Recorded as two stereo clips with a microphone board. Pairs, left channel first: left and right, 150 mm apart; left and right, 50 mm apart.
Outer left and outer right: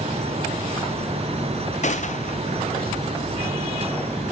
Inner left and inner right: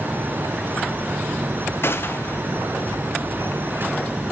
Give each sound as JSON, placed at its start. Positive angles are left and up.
{"t": 1.8, "sound": "a gunshot", "side_deg": 50, "distance_m": 0.7}